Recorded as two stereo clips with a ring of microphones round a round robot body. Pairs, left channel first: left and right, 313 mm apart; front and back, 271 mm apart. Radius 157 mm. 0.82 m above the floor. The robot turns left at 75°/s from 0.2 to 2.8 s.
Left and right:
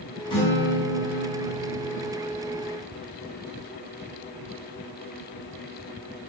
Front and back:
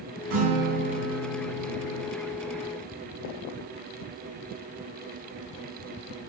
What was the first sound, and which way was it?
A guitar, 165° left.